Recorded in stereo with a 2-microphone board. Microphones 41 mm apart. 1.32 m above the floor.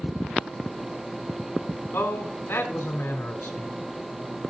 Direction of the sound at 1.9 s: 85° left.